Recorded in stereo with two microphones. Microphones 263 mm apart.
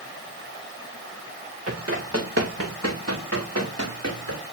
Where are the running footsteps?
60° right (ahead or behind), 5 m; by 4.5 s 75° right (ahead or behind), 9 m.